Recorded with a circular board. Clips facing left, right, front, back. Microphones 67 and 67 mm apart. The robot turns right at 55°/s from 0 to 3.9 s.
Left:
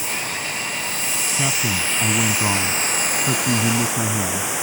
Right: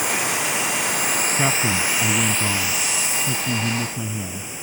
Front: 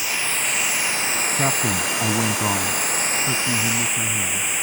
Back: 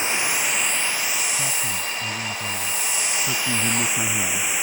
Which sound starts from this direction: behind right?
Running water, at 0.0 s.